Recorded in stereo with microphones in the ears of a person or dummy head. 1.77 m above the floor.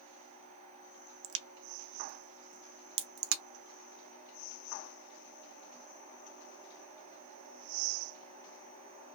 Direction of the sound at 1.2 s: 75° right (ahead or behind).